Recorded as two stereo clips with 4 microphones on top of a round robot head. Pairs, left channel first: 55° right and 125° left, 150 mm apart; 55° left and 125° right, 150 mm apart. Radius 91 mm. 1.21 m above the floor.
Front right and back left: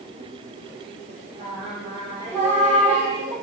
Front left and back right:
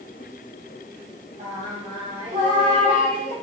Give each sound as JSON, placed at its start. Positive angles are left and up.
{"t": 1.4, "sound": "singing", "azimuth_deg": 175, "distance_m": 2.0}